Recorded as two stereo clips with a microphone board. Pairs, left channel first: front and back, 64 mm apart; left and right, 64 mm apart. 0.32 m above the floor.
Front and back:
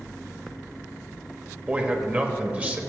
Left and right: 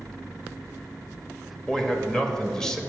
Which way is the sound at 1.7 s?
155° left.